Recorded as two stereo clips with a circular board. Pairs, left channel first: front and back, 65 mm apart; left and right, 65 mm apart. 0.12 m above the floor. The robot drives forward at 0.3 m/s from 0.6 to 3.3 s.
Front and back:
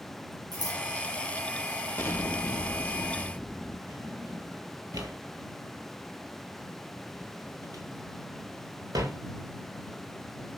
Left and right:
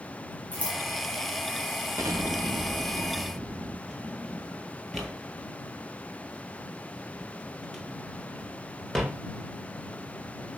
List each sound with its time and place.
0.5 s scissors: 160° left, 3 m
2.0 s an explosion: 50° right, 0.6 m; by 3.8 s 90° right, 0.5 m
3.9 s a drawer: 175° left, 1.8 m